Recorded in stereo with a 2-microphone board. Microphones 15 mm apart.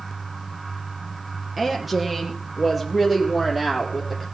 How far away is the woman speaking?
About 3.5 m.